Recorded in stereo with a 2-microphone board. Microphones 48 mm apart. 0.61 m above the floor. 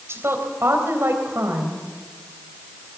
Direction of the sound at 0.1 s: 65° right (ahead or behind).